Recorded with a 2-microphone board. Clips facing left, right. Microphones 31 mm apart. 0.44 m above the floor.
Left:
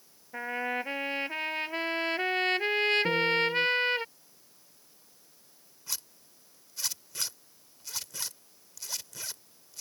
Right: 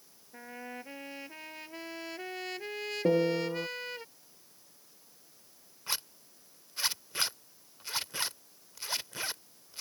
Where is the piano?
85° right.